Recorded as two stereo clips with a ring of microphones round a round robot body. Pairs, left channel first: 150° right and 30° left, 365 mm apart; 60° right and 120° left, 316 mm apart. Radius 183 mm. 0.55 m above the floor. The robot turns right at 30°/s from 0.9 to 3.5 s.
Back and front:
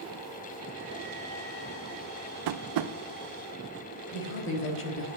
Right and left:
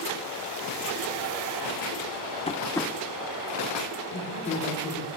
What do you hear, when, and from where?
2.5 s tapping: 10° left, 0.6 m; by 2.9 s 25° left, 0.6 m
4.1 s a woman speaking: 105° right, 1.7 m